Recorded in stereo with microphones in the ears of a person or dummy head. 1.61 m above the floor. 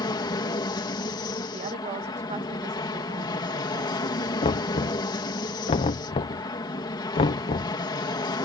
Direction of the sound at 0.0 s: 20° left (ahead or behind).